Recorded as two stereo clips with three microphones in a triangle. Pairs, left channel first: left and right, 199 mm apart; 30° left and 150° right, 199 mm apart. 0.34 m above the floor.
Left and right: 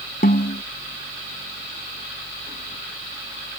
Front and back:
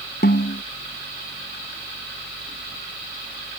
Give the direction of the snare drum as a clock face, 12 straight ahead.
10 o'clock.